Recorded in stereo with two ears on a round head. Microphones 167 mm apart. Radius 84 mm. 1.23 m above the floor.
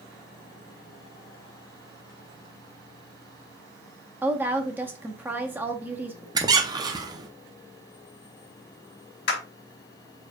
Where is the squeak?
20° right (ahead or behind), 0.7 m.